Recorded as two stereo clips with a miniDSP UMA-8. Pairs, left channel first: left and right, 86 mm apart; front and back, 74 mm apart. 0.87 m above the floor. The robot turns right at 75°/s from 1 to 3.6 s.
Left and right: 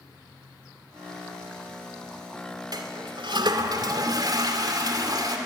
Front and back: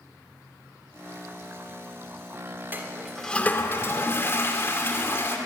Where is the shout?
I don't hear a shout.